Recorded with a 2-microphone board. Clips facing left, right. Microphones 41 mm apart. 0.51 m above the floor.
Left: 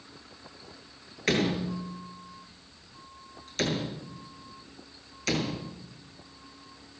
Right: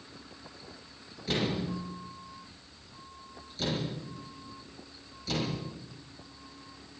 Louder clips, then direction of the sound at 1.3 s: Left 4 dB; 85° left.